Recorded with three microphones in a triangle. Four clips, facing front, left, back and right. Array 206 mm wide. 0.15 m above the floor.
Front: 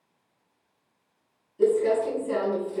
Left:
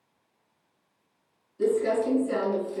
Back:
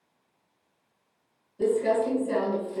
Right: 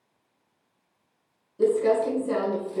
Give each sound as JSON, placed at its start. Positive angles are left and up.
{"t": 1.6, "sound": "crumpling", "azimuth_deg": -90, "distance_m": 1.5}